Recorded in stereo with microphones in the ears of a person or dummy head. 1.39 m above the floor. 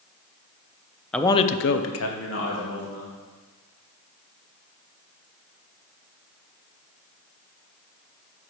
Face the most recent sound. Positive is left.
turn(degrees=65)  # may be behind; listen again after turning